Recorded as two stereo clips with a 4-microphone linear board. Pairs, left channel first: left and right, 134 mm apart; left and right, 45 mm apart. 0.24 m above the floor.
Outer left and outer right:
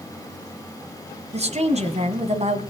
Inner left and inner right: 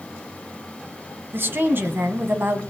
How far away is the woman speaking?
About 2 m.